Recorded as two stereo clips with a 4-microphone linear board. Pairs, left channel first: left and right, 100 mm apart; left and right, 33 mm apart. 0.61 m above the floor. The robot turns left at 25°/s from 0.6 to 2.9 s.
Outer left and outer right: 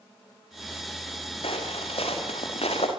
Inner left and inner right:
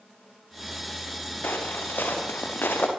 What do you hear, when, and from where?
1.4 s footsteps: 70° left (ahead or behind), 7.5 m; by 2.9 s 85° left, 7 m